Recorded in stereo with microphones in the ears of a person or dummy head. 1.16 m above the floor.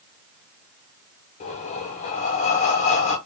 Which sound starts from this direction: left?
Breathing, at 1.4 s.